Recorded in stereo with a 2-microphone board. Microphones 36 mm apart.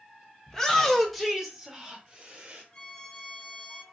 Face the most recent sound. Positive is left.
turn(degrees=25)  # may be behind; listen again after turning